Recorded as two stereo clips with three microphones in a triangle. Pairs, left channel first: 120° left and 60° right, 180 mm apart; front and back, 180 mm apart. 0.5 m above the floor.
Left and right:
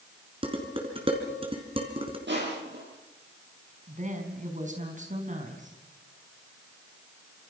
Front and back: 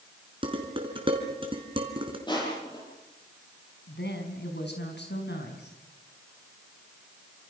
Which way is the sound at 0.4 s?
120° right.